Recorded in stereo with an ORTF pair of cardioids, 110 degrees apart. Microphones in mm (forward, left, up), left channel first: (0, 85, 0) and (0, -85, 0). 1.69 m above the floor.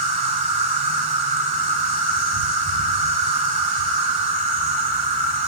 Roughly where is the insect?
Ahead right.